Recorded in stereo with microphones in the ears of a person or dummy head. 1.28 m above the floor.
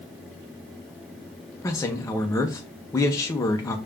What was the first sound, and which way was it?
A man speaking, 10° left (ahead or behind).